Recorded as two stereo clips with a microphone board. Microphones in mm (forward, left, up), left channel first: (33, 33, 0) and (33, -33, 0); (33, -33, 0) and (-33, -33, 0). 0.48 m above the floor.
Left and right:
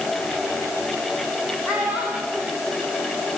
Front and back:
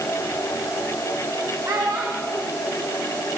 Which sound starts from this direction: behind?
A child speaking, at 1.6 s.